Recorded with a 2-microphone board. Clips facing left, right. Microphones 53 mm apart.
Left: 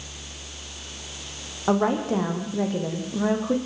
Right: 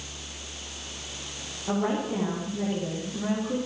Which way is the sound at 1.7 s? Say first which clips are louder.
Left 5 dB; 80° left.